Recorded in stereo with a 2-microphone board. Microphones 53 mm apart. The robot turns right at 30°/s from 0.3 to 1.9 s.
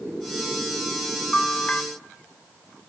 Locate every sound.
1.3 s a bell: 10° left (ahead or behind), 0.7 m; by 1.8 s 20° left (ahead or behind), 0.7 m